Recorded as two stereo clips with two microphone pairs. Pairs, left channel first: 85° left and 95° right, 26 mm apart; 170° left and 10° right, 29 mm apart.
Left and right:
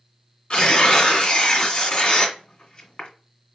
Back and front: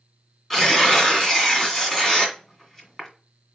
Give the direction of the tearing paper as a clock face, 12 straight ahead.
9 o'clock.